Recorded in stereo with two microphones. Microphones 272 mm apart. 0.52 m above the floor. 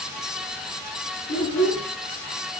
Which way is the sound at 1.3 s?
80° left.